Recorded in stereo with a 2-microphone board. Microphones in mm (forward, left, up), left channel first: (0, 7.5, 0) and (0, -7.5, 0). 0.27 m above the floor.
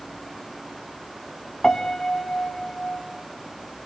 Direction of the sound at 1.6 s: 60° left (ahead or behind).